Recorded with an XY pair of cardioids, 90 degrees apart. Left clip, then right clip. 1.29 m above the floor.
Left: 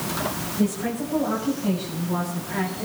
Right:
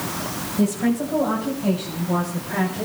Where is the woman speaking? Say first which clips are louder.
Right 5 dB; 65° right, 6.5 m.